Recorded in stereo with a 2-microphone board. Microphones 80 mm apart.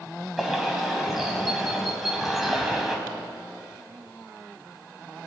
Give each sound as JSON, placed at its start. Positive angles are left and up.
{"t": 0.4, "sound": "a bird", "side_deg": -5, "distance_m": 3.5}